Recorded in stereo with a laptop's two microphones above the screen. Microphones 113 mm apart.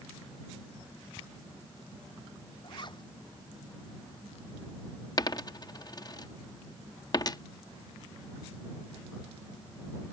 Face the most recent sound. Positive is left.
turn(degrees=35)  # may be behind; listen again after turning